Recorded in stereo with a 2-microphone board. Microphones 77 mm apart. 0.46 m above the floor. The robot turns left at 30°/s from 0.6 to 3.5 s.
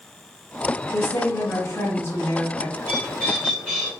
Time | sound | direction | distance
0.9 | a woman speaking | 75° left | 1.8 m
2.8 | a bird | 35° left (ahead or behind) | 1.8 m